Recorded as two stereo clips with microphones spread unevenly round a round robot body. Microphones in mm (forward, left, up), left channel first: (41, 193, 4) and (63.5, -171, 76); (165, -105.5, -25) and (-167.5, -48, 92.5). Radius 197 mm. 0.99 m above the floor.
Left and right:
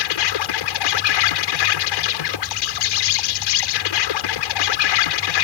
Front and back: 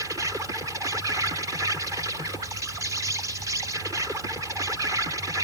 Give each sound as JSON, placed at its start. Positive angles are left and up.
{"t": 0.0, "sound": "an insect", "azimuth_deg": 85}